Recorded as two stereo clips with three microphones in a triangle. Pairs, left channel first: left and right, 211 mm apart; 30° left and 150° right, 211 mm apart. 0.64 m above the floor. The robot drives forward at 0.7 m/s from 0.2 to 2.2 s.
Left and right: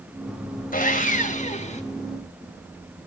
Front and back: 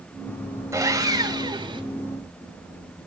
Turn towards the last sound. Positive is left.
turn(degrees=145)